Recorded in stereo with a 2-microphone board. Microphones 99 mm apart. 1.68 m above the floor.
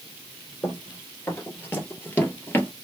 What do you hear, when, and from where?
0.6 s running footsteps: 25° left (ahead or behind), 2.5 m; by 2.7 s 20° left (ahead or behind), 1.8 m